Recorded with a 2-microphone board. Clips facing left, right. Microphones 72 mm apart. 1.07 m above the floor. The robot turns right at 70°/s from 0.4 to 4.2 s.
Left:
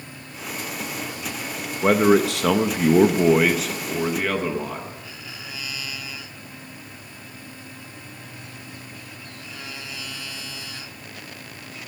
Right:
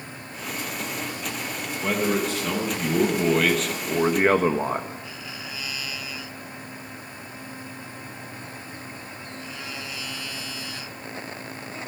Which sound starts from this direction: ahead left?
A man speaking, at 1.8 s.